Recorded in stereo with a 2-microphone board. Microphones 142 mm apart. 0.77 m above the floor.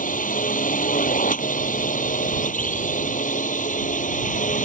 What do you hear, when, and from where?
0.0 s a drone: 70° left (ahead or behind); by 4.7 s 65° left (ahead or behind)